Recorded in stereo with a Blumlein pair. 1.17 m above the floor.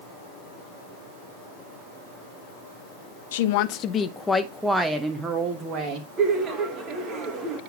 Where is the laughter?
25° right, 1.5 m.